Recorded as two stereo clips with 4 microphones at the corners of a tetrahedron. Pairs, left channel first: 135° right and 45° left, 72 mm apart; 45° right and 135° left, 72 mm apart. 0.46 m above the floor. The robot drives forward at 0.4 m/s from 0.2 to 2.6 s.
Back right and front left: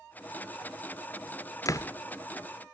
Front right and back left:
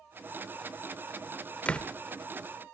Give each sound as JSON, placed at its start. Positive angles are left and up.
{"t": 1.6, "sound": "a door slam", "azimuth_deg": -110, "distance_m": 0.7}